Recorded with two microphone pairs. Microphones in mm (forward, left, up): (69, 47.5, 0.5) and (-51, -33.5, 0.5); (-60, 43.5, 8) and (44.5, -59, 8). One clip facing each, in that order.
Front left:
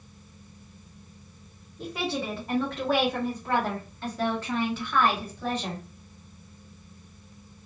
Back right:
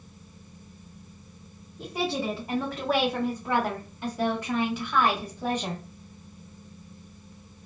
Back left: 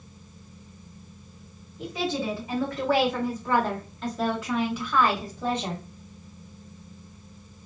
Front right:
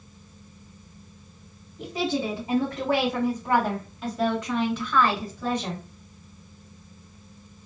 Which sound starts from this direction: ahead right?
A woman speaking, at 1.8 s.